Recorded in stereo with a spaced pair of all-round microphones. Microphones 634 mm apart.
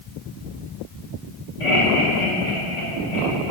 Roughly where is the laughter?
Left.